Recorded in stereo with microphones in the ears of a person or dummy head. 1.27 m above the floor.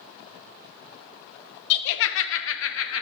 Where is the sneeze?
No sneeze in this recording.